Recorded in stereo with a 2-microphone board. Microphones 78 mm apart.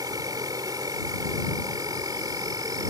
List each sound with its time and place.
0.0 s an insect: 60° right (ahead or behind)